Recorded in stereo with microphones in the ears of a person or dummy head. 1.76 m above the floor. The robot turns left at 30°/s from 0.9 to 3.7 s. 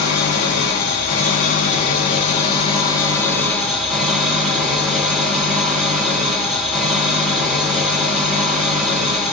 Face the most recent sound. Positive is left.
turn(degrees=0)